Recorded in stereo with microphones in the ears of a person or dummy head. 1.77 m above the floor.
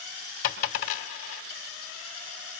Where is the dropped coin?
50° left (ahead or behind), 2.5 m.